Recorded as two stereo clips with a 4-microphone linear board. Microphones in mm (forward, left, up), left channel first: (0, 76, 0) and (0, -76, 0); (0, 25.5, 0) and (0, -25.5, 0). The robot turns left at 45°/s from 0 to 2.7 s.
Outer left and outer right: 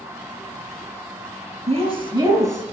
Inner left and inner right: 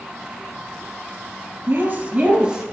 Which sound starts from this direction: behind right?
A woman speaking, at 1.7 s.